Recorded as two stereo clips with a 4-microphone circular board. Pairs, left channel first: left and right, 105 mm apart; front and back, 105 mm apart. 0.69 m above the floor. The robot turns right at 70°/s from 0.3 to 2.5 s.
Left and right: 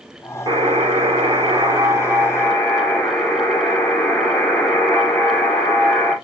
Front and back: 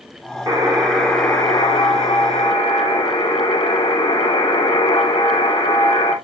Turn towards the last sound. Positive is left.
turn(degrees=10)